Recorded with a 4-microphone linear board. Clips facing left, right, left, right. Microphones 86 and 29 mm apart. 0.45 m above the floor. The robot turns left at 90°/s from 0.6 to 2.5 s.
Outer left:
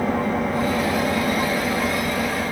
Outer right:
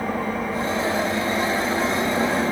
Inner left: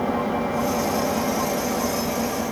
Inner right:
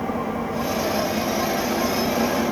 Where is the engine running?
115° left, 5 m; by 2.5 s 55° right, 5 m.